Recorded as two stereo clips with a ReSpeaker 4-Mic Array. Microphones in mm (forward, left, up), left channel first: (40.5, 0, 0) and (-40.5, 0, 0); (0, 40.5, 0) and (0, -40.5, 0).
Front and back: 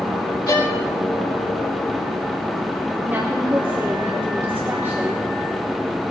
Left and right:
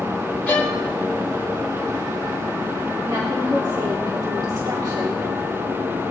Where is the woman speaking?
120° right, 2.5 m.